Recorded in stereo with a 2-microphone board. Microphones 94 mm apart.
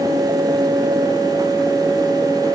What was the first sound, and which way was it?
Only background noise.